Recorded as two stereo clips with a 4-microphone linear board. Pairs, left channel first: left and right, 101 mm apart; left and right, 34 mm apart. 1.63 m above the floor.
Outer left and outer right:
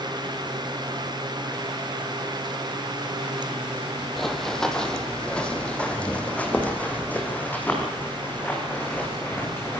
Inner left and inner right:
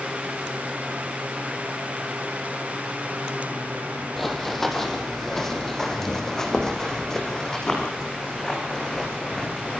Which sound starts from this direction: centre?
Running footsteps, at 4.2 s.